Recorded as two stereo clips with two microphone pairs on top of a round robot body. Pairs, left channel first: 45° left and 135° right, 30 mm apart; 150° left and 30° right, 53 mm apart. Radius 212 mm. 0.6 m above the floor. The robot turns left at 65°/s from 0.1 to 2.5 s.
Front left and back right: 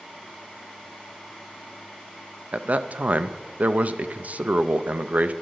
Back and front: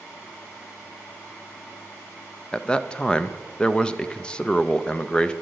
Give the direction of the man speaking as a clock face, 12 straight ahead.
5 o'clock.